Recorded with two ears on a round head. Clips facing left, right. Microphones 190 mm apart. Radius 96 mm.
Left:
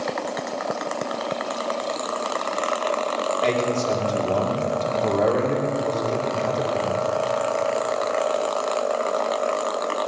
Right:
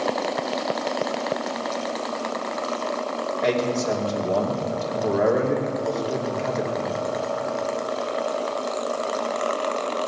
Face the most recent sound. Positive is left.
turn(degrees=-10)  # may be behind; listen again after turning